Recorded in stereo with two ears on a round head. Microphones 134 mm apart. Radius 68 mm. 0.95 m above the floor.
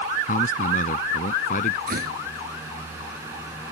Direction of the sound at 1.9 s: 70° right (ahead or behind).